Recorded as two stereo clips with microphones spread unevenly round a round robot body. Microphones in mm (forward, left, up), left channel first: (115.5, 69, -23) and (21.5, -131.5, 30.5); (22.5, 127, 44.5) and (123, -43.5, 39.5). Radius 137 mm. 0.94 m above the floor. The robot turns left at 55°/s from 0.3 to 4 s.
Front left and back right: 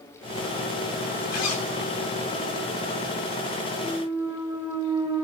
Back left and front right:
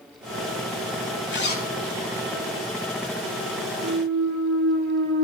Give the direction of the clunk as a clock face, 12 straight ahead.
1 o'clock.